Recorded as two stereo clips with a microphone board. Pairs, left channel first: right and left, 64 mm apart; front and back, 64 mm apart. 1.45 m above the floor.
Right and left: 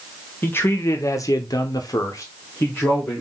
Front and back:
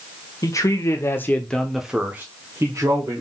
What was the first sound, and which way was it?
A man speaking, 30° right.